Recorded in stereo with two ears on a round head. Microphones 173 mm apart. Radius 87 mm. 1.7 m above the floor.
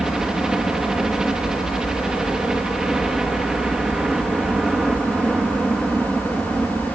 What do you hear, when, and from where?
0.0 s a helicopter: 5° right (ahead or behind)